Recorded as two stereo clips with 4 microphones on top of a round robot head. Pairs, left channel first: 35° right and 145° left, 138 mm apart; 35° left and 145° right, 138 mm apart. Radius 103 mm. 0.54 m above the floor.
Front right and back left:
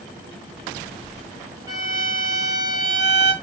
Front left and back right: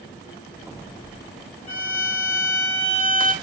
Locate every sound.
1.7 s a violin: 80° left, 4.5 m